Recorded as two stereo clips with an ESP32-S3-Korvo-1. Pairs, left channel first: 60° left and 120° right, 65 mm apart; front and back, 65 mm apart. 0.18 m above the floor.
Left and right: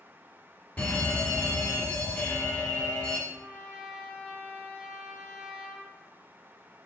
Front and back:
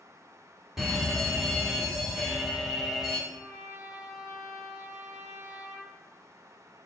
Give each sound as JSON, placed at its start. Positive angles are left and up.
{"t": 0.8, "sound": "an alarm", "azimuth_deg": 100, "distance_m": 0.9}
{"t": 3.3, "sound": "a trumpet", "azimuth_deg": 165, "distance_m": 2.5}